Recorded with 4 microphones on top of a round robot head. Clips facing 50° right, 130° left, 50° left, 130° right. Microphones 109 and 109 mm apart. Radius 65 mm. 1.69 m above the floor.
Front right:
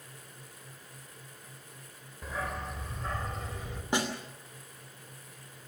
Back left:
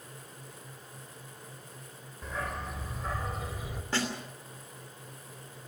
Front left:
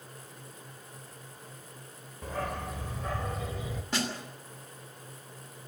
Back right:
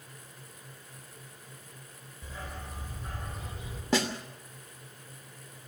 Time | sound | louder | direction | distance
2.2 | a dog barking | even, front left 9 dB | 35° left | 1.7 m
3.9 | a snare drum | front right 2 dB, back right 5 dB | 125° right | 2.5 m